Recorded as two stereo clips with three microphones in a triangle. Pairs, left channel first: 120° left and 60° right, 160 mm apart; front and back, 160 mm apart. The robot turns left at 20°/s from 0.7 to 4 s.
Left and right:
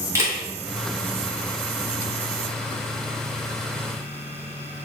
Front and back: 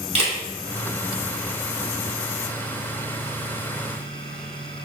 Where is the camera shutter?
130° right, 2 m.